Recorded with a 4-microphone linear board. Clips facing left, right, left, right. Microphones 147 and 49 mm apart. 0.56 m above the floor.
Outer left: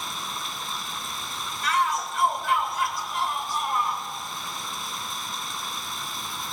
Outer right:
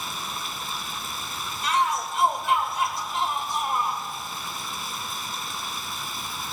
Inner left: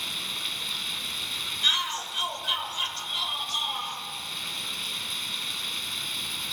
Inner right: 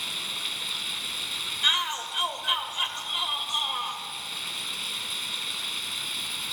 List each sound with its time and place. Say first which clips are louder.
0.0 s running water: even, even; centre (ahead or behind), 0.8 m
1.6 s a shout: outer right 1 dB, inner right 1 dB; 20° right (ahead or behind), 2.5 m